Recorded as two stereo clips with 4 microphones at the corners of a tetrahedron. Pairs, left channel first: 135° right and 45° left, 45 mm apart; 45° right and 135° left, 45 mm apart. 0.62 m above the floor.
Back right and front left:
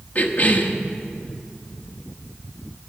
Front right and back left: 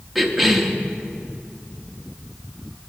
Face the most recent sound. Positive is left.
turn(degrees=-135)